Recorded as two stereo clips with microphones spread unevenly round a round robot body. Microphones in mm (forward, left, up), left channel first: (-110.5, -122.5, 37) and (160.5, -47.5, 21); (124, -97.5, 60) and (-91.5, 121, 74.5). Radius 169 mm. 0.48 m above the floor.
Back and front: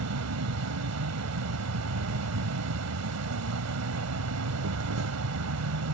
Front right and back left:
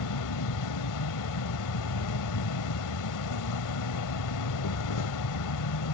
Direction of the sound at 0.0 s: 15° right.